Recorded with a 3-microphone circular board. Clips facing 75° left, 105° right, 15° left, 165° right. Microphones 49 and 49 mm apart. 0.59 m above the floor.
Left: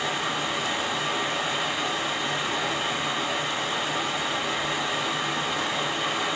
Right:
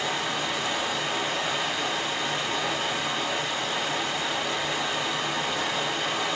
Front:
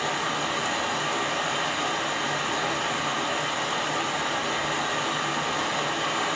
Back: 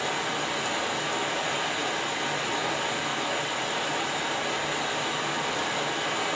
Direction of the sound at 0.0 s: Straight ahead.